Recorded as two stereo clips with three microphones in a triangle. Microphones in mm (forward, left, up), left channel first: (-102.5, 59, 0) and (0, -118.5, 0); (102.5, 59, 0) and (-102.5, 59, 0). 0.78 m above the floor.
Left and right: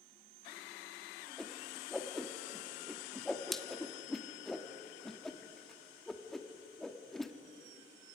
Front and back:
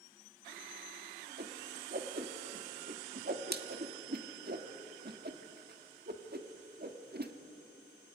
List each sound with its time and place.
1.4 s a whoosh: 150° right, 1.6 m